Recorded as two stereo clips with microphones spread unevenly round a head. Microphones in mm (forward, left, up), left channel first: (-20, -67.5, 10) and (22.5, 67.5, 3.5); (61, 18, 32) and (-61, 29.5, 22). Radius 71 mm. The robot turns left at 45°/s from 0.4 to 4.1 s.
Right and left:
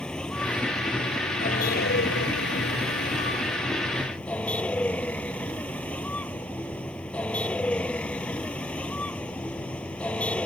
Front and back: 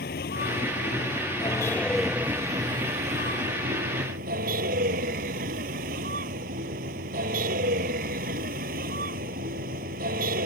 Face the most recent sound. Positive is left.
turn(degrees=170)